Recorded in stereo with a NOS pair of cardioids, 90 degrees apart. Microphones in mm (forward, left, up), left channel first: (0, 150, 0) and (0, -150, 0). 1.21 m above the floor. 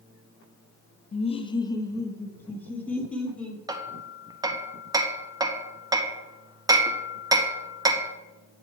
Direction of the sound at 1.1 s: 25° left.